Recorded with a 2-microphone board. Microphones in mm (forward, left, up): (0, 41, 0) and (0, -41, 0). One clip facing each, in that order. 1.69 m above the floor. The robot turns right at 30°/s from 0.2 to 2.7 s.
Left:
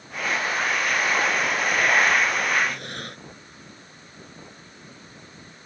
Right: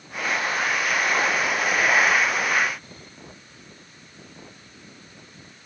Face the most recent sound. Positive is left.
turn(degrees=80)